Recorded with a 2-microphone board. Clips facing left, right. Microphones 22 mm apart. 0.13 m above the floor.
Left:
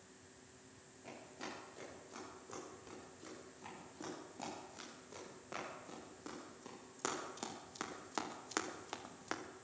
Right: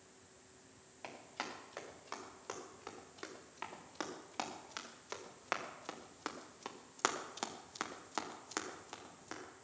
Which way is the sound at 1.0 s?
80° right.